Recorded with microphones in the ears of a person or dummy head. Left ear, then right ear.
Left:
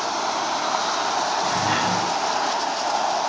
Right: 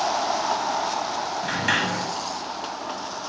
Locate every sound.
1.4 s a sliding door: 60° right (ahead or behind), 7.5 m